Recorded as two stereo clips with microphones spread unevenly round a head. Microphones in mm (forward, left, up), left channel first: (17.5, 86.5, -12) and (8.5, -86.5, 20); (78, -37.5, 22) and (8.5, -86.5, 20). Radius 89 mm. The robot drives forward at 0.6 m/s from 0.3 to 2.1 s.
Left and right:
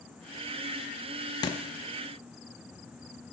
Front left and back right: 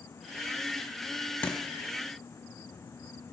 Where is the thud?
35° left, 0.6 m; by 1.6 s 60° left, 0.6 m.